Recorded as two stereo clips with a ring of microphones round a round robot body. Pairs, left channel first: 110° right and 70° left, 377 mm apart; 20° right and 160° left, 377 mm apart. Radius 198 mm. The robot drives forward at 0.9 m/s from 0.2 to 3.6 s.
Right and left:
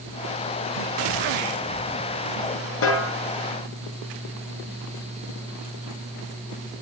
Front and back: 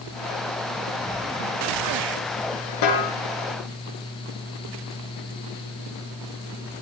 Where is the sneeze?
I don't hear a sneeze.